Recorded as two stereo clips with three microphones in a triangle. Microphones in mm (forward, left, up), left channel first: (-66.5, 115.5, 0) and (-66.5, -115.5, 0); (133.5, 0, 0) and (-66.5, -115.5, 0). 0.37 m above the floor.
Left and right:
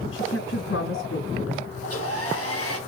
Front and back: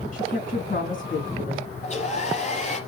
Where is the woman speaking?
80° left, 4 m.